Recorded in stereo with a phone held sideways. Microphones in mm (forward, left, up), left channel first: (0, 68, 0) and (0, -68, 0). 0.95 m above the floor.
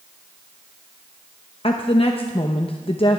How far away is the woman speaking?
About 0.7 m.